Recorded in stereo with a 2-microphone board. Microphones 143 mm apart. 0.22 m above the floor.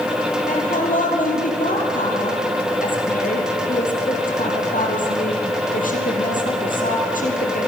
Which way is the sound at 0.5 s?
65° left (ahead or behind).